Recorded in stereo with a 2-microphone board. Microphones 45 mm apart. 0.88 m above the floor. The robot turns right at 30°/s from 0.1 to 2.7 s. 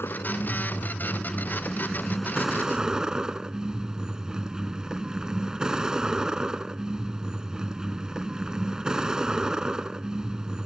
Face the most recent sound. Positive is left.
turn(degrees=-165)